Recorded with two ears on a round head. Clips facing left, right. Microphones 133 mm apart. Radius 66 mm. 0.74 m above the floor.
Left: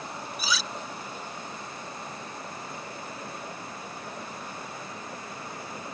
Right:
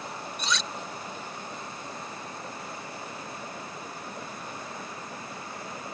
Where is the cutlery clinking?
5° left (ahead or behind).